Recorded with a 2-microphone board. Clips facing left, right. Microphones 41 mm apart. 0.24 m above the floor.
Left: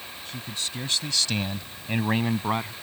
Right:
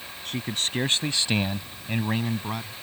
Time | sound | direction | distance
0.2 | a man speaking | 60° right (ahead or behind) | ?